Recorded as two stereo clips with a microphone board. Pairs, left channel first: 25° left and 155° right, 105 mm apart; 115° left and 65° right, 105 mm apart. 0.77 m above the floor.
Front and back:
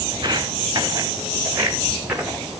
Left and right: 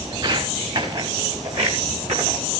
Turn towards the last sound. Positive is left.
turn(degrees=-75)